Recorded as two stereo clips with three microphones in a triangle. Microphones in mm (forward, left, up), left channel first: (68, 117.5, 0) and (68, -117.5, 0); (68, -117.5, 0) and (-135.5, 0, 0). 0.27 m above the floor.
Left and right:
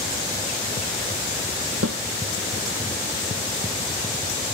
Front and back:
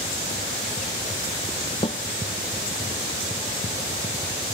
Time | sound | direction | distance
1.8 | a snare drum | 95° right | ?